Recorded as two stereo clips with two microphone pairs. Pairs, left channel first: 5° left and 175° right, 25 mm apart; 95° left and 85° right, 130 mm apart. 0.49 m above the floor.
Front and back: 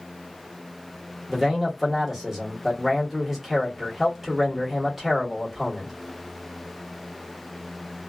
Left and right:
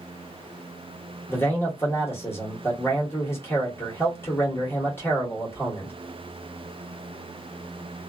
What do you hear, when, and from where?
1.3 s a man speaking: 125° left, 1.2 m